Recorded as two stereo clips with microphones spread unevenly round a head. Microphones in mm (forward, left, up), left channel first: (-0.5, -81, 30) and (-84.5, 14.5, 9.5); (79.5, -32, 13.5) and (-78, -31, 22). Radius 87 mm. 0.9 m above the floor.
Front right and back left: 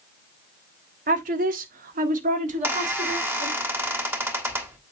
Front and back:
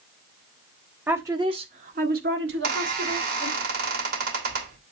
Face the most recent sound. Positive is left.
turn(degrees=-155)